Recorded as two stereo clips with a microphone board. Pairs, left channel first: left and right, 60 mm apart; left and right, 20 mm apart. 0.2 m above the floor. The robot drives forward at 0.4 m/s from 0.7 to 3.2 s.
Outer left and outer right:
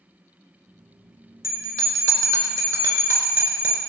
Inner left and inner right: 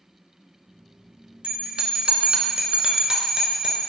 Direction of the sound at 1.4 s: 60° right (ahead or behind).